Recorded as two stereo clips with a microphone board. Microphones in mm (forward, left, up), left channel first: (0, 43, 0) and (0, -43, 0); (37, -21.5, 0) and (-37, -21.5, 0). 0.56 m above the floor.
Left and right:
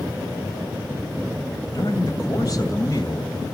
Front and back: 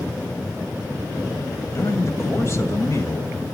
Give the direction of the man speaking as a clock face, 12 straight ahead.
10 o'clock.